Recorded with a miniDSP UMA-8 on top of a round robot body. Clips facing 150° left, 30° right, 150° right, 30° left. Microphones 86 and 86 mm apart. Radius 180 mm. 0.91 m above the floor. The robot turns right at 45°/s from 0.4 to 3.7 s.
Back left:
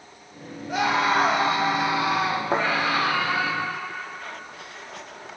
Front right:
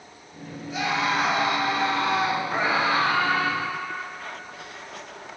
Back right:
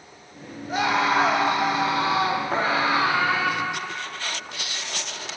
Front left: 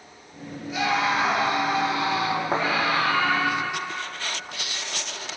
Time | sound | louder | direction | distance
0.7 | a scream | back left 4 dB, back right 2 dB | 170° left | 4 m
2.5 | a thud | back left 3 dB, even | 105° left | 3 m